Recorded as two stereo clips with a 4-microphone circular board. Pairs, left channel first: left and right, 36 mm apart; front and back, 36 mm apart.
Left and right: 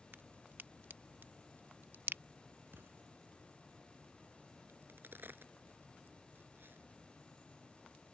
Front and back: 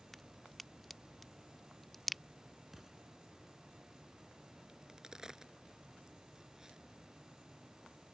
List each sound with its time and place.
0.1 s a crack: 85° right
2.7 s an explosion: 95° right
4.7 s a crack: 105° right